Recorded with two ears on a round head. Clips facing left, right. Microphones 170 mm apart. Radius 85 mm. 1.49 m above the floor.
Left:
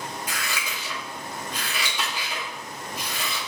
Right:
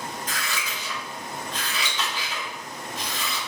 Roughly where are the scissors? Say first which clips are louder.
Even; centre.